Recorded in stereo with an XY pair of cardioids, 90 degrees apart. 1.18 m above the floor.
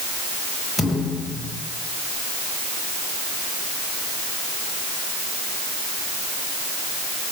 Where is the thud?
20° left, 6.5 m.